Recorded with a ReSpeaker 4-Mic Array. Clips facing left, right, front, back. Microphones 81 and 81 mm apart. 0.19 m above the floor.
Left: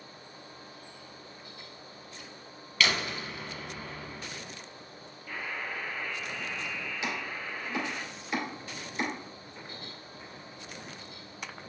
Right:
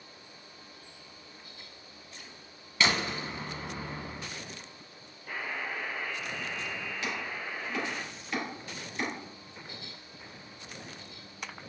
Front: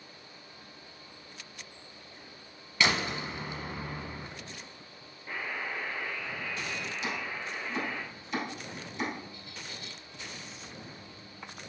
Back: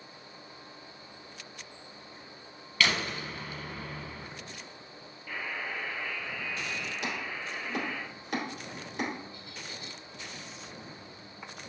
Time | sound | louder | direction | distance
2.8 | a door slam | right 1 dB, front 1 dB | 50° right | 0.9 m
5.3 | a buzzer | right 1 dB, front 1 dB | 55° right | 2.5 m
7.0 | chopping | left 1 dB, front 1 dB | 165° left | 2.5 m